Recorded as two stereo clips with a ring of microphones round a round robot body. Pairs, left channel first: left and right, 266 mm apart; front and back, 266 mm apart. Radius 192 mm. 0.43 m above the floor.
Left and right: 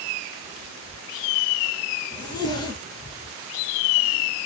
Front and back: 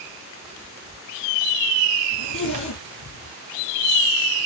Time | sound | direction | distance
2.1 | a zipper | 15° left | 4 m